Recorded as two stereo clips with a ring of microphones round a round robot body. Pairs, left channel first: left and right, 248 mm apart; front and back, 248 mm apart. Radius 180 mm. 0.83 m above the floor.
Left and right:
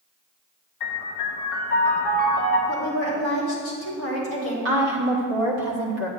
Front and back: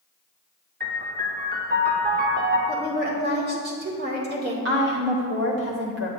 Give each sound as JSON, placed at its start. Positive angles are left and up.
{"t": 0.8, "sound": "a piano", "azimuth_deg": 125, "distance_m": 1.1}
{"t": 2.7, "sound": "a woman speaking", "azimuth_deg": 130, "distance_m": 2.5}
{"t": 4.7, "sound": "a woman speaking", "azimuth_deg": -135, "distance_m": 1.1}